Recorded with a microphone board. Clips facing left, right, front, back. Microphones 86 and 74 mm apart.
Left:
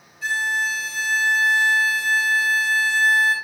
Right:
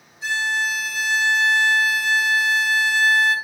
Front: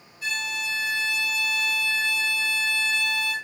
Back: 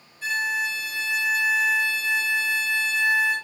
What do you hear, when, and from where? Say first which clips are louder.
0.2 s a violin: even, back 5 dB; 160° right, 1.6 m